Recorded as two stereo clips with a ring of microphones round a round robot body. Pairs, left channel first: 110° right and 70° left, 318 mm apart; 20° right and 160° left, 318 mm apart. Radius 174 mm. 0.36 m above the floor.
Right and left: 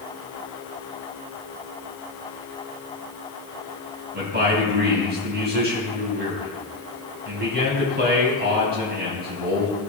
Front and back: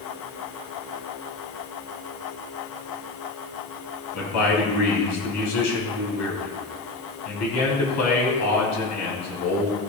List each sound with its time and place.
4.1 s a man speaking: 10° left, 3.5 m